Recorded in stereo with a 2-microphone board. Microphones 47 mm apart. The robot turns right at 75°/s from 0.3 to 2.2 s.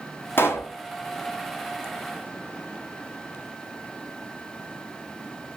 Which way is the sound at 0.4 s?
50° left (ahead or behind).